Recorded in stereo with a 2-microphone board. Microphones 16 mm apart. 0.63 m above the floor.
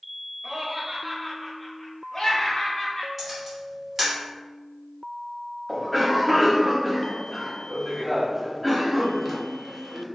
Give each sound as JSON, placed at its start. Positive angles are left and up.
{"t": 0.4, "sound": "laughter", "side_deg": -25, "distance_m": 0.9}
{"t": 3.2, "sound": "a camera shutter", "side_deg": -10, "distance_m": 1.2}
{"t": 5.7, "sound": "a cough", "side_deg": -5, "distance_m": 0.8}